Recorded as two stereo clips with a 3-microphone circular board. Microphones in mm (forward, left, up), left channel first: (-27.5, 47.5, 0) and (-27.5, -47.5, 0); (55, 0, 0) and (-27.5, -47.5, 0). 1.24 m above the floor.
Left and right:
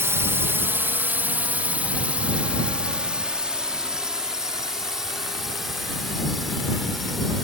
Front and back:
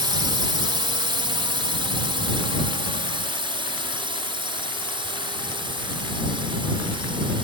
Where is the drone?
145° right; by 7.4 s straight behind.